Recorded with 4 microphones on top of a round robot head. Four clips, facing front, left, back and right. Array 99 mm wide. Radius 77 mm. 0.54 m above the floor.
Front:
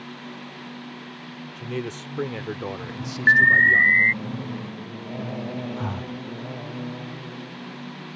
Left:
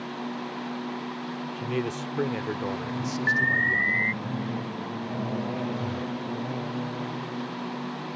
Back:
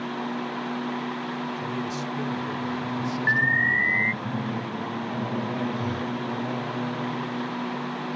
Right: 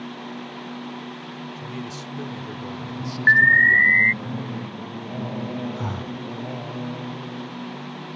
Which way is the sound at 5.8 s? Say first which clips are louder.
Even, back 3 dB; 40° right.